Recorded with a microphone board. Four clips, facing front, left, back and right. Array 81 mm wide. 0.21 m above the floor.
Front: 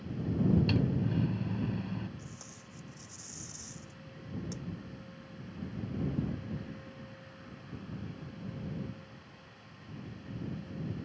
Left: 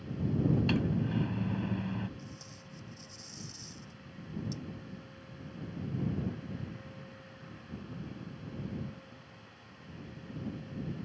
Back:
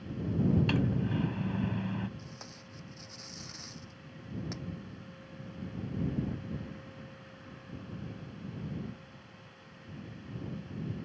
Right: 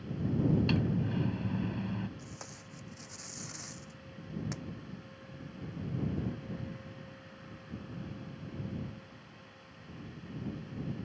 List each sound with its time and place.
0.7 s a microwave: 160° left
2.2 s tape being pulled: 115° right